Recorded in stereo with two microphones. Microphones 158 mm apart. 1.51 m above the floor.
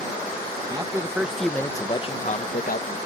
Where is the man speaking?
25° right (ahead or behind); by 3.0 s 70° left (ahead or behind).